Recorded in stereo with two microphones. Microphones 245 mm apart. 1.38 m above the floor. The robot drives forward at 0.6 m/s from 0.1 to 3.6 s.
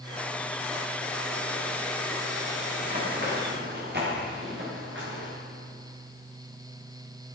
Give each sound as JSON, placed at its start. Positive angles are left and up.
{"t": 2.8, "sound": "running footsteps", "side_deg": -35, "distance_m": 6.5}